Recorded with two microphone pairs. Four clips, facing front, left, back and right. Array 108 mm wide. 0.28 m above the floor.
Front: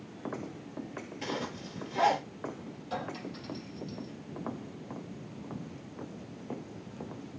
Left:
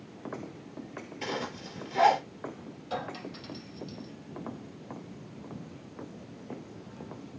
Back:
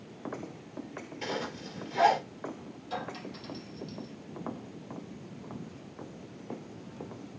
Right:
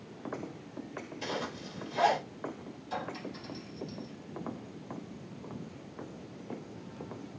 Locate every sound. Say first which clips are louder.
1.2 s a zipper: left 2 dB, back 1 dB; 110° left, 6 m
2.9 s a clink: left 2 dB, even; 90° left, 5 m